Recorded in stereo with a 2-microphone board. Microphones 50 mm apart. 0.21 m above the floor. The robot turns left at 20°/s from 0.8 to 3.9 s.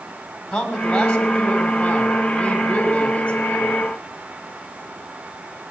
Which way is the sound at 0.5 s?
15° left (ahead or behind).